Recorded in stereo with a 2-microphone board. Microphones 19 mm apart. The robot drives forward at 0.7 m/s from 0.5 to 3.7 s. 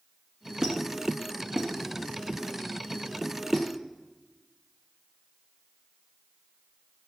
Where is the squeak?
35° right (ahead or behind), 1.3 m; by 3.7 s 15° right (ahead or behind), 3 m.